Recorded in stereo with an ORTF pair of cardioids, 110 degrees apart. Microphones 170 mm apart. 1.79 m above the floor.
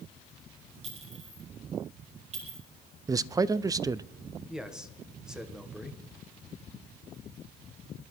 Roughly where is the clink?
Ahead right.